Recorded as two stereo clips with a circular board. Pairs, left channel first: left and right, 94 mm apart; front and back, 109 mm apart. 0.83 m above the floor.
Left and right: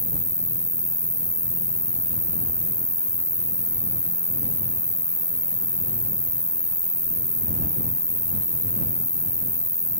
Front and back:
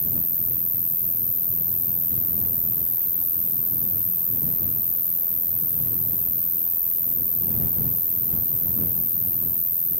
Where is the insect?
135° right.